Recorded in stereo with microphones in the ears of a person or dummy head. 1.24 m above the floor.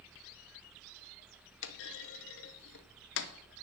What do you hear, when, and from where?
1.6 s a clunk: 65° left (ahead or behind), 0.7 m